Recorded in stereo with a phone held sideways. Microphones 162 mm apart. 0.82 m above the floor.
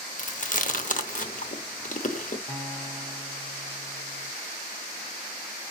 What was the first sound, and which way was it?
Chewing, 55° left (ahead or behind).